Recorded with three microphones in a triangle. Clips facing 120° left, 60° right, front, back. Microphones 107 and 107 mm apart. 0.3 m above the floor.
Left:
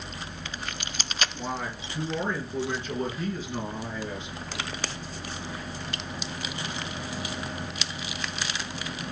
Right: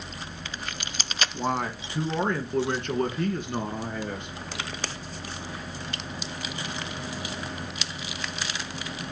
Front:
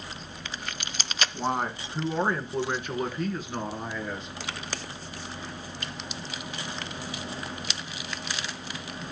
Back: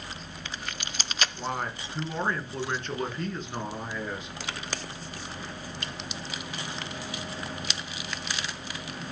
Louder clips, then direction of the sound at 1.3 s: Right 5 dB, front 4 dB; 60° right.